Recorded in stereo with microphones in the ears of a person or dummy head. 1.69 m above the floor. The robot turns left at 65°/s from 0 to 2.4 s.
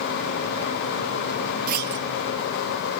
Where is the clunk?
50° right (ahead or behind), 1.0 m; by 2.0 s 70° right (ahead or behind), 1.0 m.